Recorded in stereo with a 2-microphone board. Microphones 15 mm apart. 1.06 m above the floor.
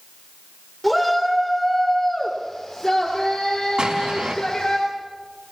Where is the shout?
5° left (ahead or behind), 3.5 m; by 4.8 s 65° left (ahead or behind), 4 m.